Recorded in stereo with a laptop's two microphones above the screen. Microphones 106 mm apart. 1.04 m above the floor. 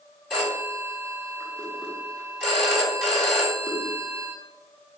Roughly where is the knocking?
No knocking in this recording.